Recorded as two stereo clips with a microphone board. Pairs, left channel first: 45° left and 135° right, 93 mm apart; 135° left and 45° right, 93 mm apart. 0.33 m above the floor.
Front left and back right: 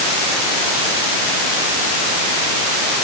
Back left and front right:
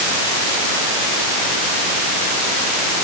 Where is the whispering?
No whispering in this recording.